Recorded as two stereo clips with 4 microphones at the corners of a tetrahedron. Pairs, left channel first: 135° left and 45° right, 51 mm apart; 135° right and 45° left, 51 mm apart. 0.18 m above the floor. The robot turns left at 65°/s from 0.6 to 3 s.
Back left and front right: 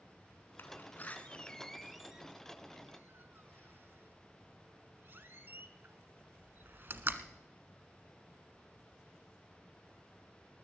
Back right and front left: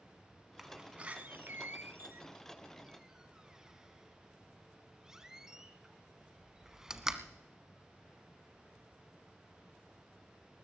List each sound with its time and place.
0.6 s a door slam: 125° left, 1.0 m; by 7.4 s 30° right, 1.0 m